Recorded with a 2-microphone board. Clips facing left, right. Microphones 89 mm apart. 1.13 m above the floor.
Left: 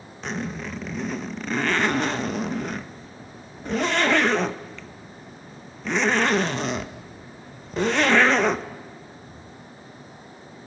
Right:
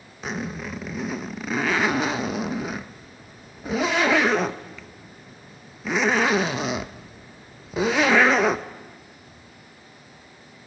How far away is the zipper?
About 0.6 m.